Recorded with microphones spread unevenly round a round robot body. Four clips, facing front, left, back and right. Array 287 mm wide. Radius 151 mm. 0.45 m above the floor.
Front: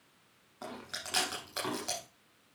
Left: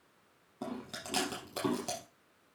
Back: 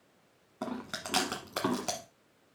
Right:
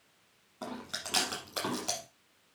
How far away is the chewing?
About 0.9 m.